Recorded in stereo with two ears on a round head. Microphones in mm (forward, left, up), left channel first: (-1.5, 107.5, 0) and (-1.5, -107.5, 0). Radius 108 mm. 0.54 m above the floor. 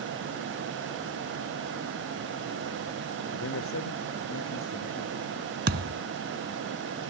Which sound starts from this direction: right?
A thud, at 5.7 s.